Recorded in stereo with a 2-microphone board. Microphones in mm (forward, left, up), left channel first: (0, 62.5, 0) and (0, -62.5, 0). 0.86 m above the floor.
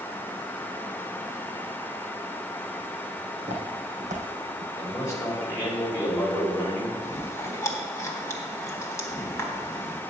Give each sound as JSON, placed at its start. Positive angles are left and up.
{"t": 3.4, "sound": "footsteps", "side_deg": -60, "distance_m": 2.5}
{"t": 4.8, "sound": "a man speaking", "side_deg": 25, "distance_m": 2.5}
{"t": 7.0, "sound": "chewing", "side_deg": 25, "distance_m": 1.2}